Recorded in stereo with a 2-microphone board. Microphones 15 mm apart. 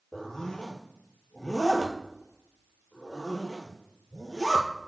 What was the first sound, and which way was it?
A zipper, 45° left (ahead or behind).